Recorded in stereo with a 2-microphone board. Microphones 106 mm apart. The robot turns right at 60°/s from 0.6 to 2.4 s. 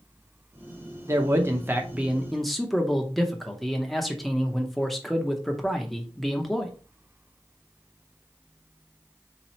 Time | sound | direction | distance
1.1 | a man speaking | 30° right (ahead or behind) | 0.7 m